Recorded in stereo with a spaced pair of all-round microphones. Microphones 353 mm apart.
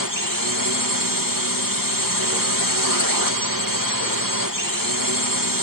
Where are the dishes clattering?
I don't hear dishes clattering.